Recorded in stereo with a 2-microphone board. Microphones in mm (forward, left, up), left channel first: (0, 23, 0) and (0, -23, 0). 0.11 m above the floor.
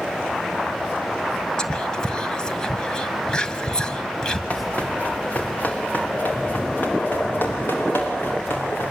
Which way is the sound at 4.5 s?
30° left (ahead or behind).